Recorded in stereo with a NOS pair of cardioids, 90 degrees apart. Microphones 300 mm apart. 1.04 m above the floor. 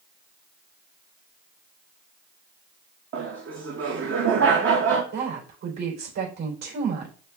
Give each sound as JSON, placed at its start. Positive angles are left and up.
{"t": 3.1, "sound": "laughter", "azimuth_deg": -45, "distance_m": 1.0}
{"t": 5.1, "sound": "a woman speaking", "azimuth_deg": -60, "distance_m": 3.5}